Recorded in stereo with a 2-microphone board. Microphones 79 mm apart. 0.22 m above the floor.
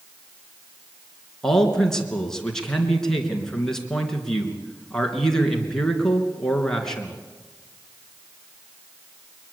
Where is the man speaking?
5° left (ahead or behind), 3 m.